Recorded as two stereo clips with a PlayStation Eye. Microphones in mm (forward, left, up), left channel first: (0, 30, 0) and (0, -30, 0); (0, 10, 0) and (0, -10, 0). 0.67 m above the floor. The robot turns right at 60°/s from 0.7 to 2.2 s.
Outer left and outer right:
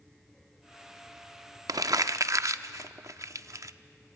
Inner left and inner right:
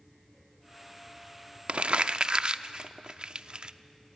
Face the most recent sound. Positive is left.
turn(degrees=-60)  # may be behind; listen again after turning